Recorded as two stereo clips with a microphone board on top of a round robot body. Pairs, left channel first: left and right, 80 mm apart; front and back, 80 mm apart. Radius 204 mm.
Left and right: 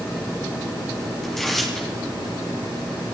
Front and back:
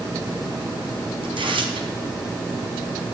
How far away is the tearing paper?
About 2.5 m.